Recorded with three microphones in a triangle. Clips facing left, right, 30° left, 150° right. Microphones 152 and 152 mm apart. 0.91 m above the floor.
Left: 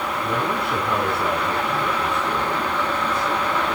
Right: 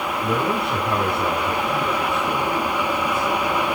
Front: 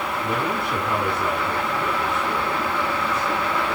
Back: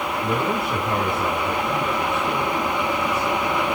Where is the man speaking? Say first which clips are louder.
Right 3 dB, back 3 dB; 110° right, 9 m; by 3.8 s 130° right, 8 m.